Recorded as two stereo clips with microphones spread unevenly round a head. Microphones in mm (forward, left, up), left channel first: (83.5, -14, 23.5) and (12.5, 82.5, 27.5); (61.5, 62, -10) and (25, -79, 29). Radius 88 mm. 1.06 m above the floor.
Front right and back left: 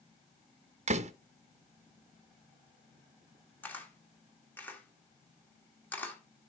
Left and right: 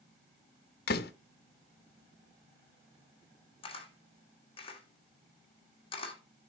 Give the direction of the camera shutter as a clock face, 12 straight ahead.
11 o'clock.